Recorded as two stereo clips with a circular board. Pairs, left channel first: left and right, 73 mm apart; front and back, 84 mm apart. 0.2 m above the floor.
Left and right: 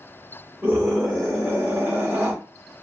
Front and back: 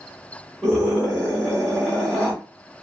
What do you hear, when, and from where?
0.6 s a scream: 95° right, 1.7 m